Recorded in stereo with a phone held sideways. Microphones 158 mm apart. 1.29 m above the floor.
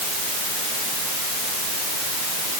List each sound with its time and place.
Only background noise.